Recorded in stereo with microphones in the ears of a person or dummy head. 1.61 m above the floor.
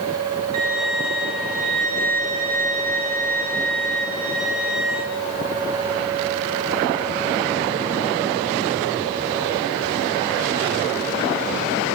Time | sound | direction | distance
0.5 | a violin | 60° right (ahead or behind) | 8.5 m